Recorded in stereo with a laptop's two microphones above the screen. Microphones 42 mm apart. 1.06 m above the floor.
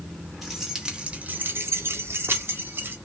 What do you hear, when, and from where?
0.4 s keys jangling: 5° right (ahead or behind), 1.1 m; by 3.0 s 55° right (ahead or behind), 1.3 m